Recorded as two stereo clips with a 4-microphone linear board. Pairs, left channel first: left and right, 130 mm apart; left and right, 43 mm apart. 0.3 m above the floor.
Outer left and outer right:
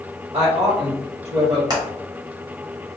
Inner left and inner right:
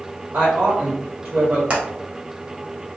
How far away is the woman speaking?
About 1.3 m.